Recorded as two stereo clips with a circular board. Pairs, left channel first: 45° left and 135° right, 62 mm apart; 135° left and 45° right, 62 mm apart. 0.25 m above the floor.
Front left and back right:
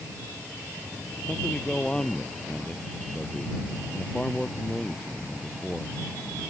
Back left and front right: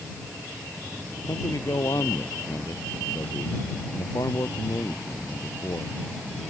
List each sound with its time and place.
1.3 s a man speaking: 120° left